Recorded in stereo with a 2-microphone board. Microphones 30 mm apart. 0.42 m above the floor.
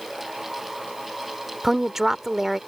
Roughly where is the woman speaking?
Centre.